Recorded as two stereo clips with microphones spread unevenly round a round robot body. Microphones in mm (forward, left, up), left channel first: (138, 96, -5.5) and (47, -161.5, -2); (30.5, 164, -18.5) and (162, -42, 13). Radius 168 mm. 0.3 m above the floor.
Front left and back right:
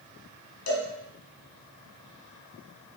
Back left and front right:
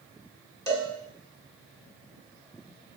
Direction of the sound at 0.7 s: 50° left.